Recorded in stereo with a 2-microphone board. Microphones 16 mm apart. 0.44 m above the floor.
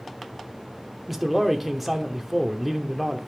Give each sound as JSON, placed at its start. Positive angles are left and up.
{"t": 1.1, "sound": "a man speaking", "side_deg": -5, "distance_m": 0.9}